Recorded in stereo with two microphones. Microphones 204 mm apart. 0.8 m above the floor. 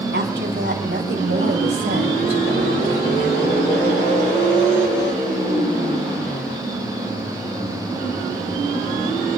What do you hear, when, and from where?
0.1 s a woman speaking: 65° right (ahead or behind), 4.5 m; by 3.6 s 85° right, 5 m